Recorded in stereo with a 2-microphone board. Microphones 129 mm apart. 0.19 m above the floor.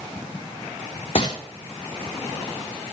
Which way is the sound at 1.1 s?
45° left (ahead or behind).